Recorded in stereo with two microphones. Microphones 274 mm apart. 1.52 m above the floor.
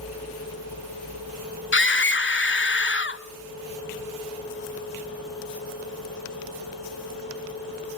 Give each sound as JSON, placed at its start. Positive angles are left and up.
{"t": 1.7, "sound": "a scream", "side_deg": 45, "distance_m": 1.2}